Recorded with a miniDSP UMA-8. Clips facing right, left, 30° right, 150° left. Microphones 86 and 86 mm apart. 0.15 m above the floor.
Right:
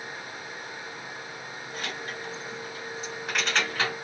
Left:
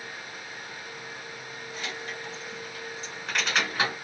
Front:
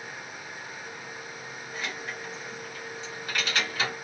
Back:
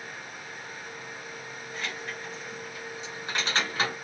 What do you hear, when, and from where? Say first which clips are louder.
1.7 s keys jangling: right 1 dB, front 1 dB; 105° right, 1.7 m; by 4.0 s 145° left, 1.3 m